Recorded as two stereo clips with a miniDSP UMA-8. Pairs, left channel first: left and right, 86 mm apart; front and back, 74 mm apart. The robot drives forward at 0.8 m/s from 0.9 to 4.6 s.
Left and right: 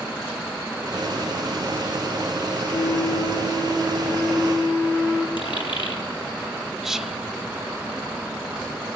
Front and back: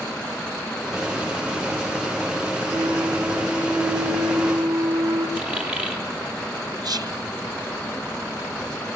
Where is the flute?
135° left, 1.7 m; by 5.3 s 155° left, 3 m.